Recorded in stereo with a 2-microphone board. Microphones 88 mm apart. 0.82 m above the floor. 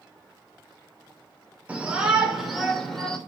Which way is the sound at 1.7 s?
15° right (ahead or behind).